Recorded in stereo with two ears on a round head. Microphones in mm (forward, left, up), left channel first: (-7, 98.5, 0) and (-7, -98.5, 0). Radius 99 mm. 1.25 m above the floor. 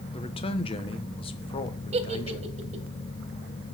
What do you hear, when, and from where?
0.1 s a man speaking: 25° left (ahead or behind), 1.0 m
1.9 s a giggle: 30° right (ahead or behind), 1.1 m